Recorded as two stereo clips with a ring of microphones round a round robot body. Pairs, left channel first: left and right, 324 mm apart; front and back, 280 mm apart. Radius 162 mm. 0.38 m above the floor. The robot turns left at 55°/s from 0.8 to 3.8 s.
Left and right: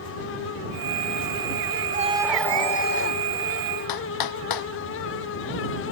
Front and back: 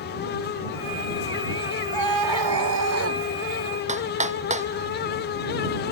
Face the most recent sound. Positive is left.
turn(degrees=115)